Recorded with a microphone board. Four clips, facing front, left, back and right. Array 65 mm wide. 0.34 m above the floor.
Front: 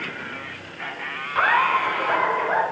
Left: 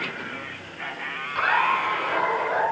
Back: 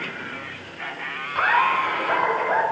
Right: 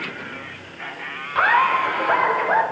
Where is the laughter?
65° right, 0.9 m; by 2.6 s 95° right, 2 m.